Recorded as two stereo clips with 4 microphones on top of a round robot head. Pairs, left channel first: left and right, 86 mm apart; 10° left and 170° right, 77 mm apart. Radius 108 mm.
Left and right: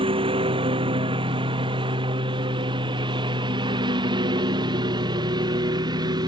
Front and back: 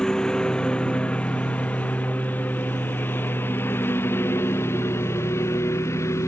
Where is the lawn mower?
75° right; by 6.3 s 50° right.